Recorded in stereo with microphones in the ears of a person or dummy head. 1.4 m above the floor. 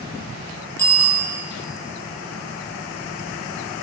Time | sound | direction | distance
0.8 | a bicycle bell | 10° left (ahead or behind) | 5.5 m